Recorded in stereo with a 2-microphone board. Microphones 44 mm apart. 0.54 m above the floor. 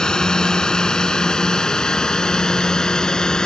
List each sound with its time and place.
0.0 s a drone: 15° left (ahead or behind)